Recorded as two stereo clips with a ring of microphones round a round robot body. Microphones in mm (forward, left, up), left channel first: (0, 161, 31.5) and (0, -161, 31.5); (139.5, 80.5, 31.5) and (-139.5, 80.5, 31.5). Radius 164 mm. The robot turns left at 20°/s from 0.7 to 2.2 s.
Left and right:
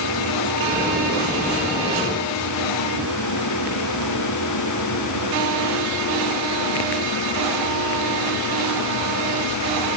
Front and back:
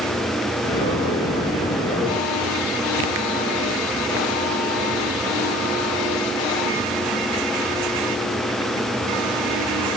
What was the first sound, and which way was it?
Only background noise.